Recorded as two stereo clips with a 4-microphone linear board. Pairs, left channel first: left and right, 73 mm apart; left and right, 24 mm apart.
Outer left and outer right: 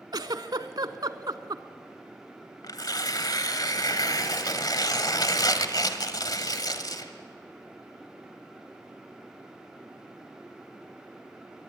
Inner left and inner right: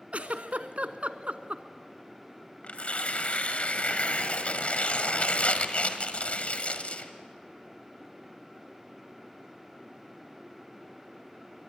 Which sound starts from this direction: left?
Tearing paper, at 2.6 s.